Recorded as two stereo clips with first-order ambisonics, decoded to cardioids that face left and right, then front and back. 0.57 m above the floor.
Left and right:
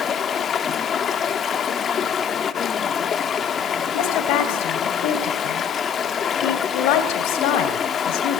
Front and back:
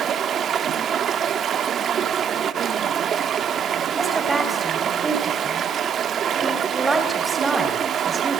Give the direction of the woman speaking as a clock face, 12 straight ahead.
9 o'clock.